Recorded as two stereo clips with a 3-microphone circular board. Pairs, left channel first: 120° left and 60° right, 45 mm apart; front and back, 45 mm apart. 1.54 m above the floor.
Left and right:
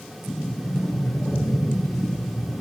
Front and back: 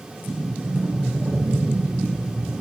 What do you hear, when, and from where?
0.2 s a sliding door: 135° left, 1.6 m